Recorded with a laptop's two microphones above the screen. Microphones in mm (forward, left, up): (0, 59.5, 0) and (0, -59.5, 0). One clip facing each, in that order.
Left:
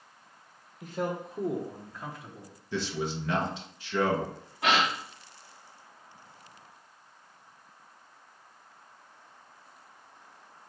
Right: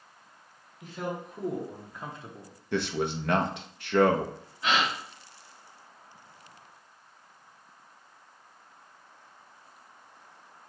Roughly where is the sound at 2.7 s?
Right.